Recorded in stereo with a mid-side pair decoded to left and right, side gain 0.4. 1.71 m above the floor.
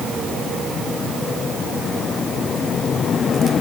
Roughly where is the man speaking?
I don't hear a man speaking.